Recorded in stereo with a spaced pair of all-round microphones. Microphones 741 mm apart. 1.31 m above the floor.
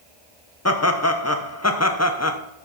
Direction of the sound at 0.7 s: 20° left (ahead or behind).